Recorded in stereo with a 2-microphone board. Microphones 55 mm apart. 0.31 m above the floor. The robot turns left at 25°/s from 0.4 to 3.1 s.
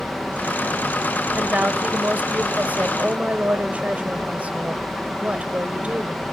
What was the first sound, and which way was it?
A woman speaking, 75° right.